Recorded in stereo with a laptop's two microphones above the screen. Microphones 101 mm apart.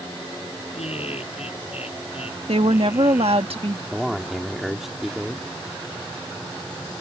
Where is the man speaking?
5° right (ahead or behind).